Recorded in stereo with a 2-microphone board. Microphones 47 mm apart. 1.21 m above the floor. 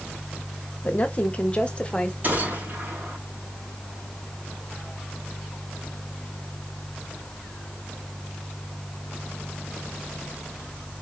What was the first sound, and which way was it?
A woman speaking, 35° left (ahead or behind).